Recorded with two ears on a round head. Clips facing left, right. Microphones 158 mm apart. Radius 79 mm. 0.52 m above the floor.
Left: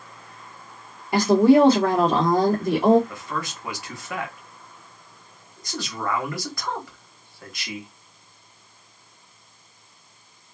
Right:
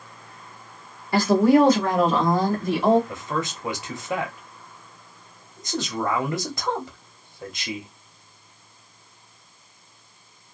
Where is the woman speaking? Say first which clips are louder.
Left 2 dB; 15° left (ahead or behind), 0.9 m; by 3.0 s 40° left (ahead or behind), 1.3 m.